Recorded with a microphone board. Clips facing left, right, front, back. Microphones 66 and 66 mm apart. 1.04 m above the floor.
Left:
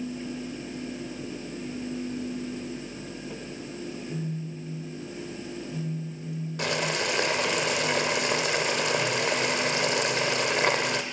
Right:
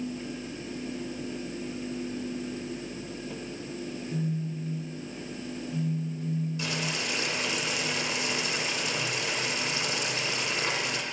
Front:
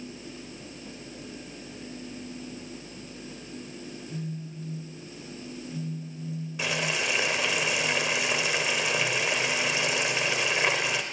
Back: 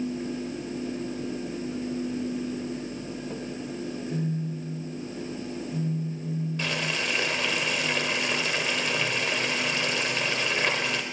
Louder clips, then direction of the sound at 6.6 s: Left 5 dB, front 4 dB; 80° left.